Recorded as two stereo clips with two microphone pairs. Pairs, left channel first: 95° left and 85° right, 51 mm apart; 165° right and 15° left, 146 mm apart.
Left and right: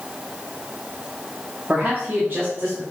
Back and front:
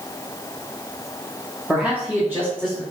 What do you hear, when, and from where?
1.7 s a man speaking: 70° right, 0.8 m; by 2.8 s 50° right, 1.9 m